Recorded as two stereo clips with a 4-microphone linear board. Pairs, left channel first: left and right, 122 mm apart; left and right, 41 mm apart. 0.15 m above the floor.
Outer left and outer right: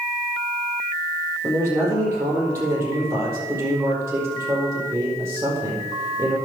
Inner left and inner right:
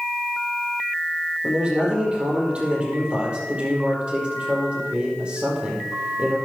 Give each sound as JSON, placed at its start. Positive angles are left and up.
{"t": 1.4, "sound": "a man speaking", "side_deg": -20, "distance_m": 4.5}